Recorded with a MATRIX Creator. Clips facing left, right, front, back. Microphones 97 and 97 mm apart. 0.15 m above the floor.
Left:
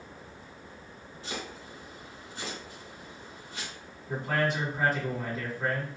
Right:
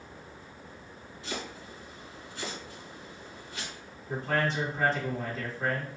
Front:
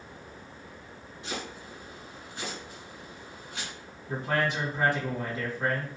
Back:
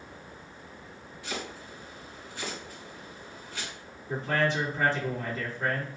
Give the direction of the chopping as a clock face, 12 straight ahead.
10 o'clock.